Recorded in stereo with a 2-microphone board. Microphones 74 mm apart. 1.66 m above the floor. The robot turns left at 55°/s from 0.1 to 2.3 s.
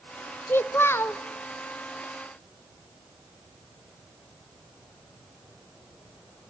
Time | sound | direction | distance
0.5 | a child speaking | 115° left | 0.5 m